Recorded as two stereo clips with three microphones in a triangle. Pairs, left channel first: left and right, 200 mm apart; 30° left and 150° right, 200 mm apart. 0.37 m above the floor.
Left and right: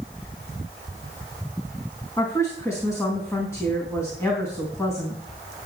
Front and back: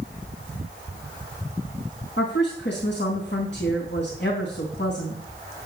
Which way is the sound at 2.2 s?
15° left.